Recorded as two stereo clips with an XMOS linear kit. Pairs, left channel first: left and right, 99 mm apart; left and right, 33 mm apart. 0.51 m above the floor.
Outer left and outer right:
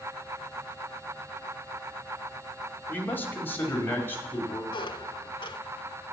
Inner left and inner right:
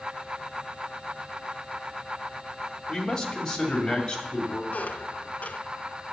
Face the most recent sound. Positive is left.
turn(degrees=55)  # may be behind; listen again after turning